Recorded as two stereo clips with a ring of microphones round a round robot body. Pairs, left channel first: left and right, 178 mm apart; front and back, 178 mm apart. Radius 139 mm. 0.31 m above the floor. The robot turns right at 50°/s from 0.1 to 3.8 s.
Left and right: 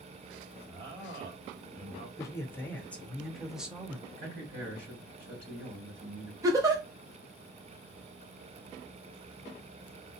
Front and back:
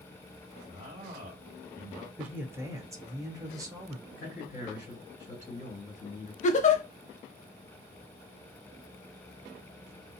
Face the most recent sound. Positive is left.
turn(degrees=-25)